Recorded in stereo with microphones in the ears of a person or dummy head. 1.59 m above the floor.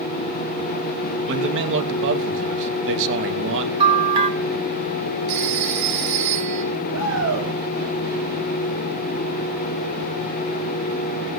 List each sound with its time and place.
1.3 s a man speaking: 55° right (ahead or behind), 2.5 m
3.8 s a bell: 20° right (ahead or behind), 2.5 m
5.3 s a phone ringing: 50° right (ahead or behind), 6.5 m
6.9 s a shout: 70° right (ahead or behind), 8 m